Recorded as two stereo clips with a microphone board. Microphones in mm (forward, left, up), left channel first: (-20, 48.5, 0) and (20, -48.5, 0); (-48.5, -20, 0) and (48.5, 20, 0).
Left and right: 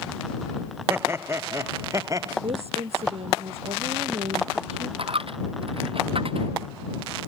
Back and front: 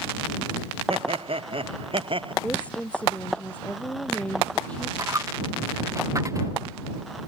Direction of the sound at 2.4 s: 80° right.